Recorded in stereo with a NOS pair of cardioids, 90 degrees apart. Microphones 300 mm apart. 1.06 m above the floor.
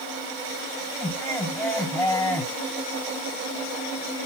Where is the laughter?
10° left, 4 m.